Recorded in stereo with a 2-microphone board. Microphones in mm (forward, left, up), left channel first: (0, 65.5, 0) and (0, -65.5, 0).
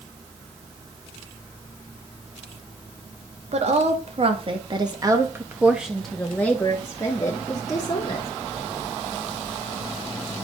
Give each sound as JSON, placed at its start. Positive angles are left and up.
{"t": 3.5, "sound": "a woman speaking", "side_deg": -60, "distance_m": 1.8}